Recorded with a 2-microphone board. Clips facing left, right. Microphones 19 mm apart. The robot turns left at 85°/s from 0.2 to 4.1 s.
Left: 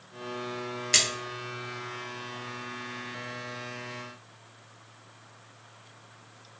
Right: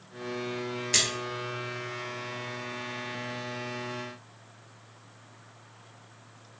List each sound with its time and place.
0.9 s a splash: 25° left (ahead or behind), 0.7 m; by 1.1 s 35° left (ahead or behind), 0.7 m